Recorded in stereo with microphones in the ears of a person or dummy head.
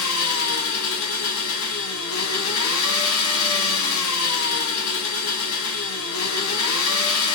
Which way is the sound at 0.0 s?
80° left.